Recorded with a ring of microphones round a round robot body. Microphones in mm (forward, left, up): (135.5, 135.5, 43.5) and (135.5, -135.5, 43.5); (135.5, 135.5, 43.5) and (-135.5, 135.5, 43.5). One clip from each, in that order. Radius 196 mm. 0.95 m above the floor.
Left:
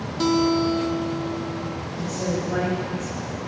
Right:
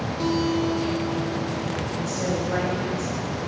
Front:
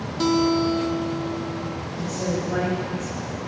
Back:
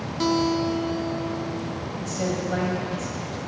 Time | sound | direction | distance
0.2 | a guitar | 80° left | 1.2 m
1.9 | a woman speaking | 130° right | 5 m